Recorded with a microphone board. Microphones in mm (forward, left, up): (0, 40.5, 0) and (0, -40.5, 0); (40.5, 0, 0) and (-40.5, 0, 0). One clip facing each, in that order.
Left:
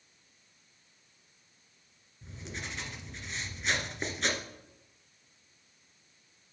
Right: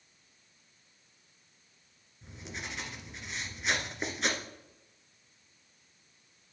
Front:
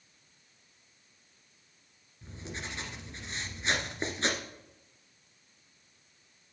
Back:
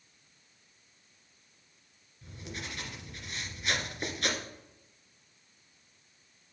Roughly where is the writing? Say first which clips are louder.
Even, front 1 dB; ahead.